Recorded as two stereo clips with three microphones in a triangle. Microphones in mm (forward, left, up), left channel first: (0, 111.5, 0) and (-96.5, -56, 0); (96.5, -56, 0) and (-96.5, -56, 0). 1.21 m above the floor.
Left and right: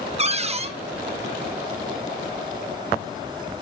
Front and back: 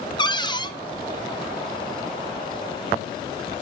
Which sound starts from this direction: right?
A cupboard door, at 0.2 s.